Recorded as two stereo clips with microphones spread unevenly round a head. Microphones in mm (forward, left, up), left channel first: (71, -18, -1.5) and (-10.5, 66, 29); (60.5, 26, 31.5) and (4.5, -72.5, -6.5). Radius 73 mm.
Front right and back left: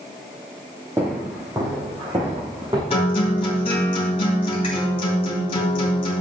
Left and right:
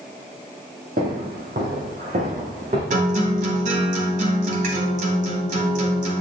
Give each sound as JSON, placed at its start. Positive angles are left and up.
{"t": 1.0, "sound": "footsteps", "azimuth_deg": -160, "distance_m": 2.5}
{"t": 2.9, "sound": "a guitar", "azimuth_deg": -105, "distance_m": 2.5}